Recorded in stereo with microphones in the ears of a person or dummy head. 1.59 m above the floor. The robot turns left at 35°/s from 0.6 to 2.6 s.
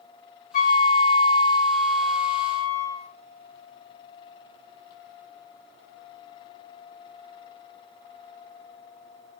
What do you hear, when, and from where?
0.5 s a flute: 55° left, 1.5 m; by 3.1 s 15° right, 1.5 m